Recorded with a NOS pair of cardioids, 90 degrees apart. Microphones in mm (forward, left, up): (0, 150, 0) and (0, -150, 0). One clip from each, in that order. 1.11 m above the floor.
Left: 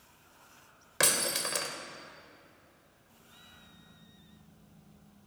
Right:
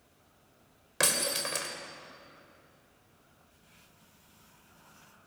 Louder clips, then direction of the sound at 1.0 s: Even; 5° left.